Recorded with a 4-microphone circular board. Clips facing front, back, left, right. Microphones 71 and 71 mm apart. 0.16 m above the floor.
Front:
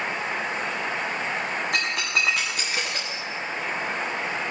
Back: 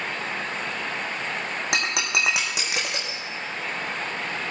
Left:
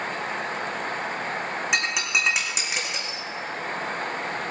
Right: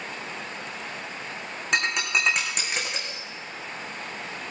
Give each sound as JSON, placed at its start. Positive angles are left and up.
{"t": 1.7, "sound": "breaking glass", "azimuth_deg": 175, "distance_m": 3.5}